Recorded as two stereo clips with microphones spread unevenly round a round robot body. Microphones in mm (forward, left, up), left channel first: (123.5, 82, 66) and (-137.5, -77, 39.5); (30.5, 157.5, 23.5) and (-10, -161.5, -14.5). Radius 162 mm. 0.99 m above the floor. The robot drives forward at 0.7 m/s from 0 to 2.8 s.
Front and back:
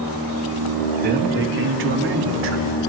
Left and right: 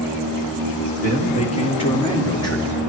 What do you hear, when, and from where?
1.0 s a man speaking: 150° left, 1.6 m; by 2.8 s 165° left, 3 m